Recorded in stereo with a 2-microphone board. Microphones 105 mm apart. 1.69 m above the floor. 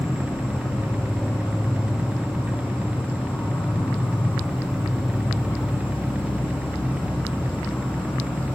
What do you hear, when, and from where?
0.0 s an insect: 15° left (ahead or behind), 3 m